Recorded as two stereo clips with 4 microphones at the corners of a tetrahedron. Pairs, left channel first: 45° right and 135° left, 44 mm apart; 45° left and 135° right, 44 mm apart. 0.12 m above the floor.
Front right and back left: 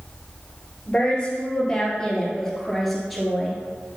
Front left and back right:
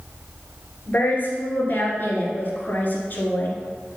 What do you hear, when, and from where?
0.9 s a woman speaking: 15° left, 2.5 m; by 3.6 s 55° left, 1.9 m